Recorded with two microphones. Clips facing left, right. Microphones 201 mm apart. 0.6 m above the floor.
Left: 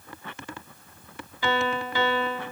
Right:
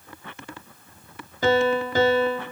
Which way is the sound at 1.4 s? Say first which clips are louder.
Right 7 dB; 40° right (ahead or behind).